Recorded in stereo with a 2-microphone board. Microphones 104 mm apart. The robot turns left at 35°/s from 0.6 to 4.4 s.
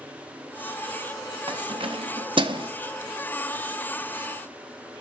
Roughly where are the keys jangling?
Right.